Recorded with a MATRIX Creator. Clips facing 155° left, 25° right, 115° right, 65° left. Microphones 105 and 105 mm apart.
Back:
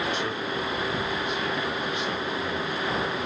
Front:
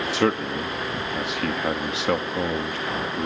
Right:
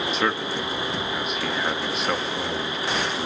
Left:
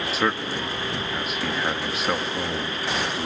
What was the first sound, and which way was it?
A man speaking, 20° right.